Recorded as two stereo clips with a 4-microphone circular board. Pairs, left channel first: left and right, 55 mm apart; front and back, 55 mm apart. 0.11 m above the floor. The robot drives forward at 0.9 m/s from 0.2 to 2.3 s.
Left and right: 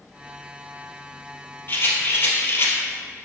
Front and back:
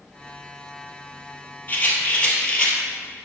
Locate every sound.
1.7 s a rattle: 55° left, 2.5 m; by 2.8 s 65° left, 2.5 m